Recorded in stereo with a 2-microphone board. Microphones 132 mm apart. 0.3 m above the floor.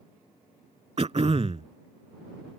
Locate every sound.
1.0 s throat clearing: 50° right (ahead or behind)